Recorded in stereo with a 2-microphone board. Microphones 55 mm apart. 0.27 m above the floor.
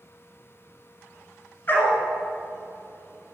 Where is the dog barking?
35° left (ahead or behind), 1.6 m.